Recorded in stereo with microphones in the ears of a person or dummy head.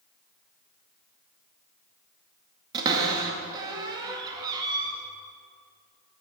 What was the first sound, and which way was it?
A cupboard door, 20° right (ahead or behind).